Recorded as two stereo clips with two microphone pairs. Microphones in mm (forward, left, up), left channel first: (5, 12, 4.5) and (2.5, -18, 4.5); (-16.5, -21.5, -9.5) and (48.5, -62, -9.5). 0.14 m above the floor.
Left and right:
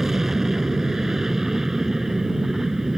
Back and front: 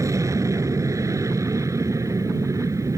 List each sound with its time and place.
0.0 s an aircraft: 20° right